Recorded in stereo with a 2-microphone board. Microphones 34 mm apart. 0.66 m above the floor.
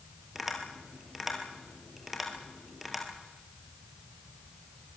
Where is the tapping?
5° right (ahead or behind), 3.5 m.